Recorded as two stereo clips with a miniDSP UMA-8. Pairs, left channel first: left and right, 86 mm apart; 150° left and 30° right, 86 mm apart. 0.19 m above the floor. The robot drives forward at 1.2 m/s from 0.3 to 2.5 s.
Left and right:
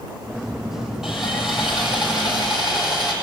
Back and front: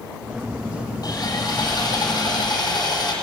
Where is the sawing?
175° right, 6 m.